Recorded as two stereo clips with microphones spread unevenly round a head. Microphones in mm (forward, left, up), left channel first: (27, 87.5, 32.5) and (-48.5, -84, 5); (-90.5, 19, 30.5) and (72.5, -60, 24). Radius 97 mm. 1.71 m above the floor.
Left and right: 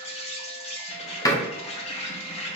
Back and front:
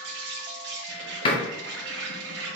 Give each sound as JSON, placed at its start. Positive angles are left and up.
{"t": 0.0, "sound": "an insect", "azimuth_deg": 10, "distance_m": 0.8}
{"t": 1.2, "sound": "a door slam", "azimuth_deg": 115, "distance_m": 0.6}